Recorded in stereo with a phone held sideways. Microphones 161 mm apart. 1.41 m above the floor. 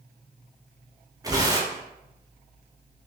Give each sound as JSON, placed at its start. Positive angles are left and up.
{"t": 1.2, "sound": "tearing paper", "side_deg": -20, "distance_m": 0.5}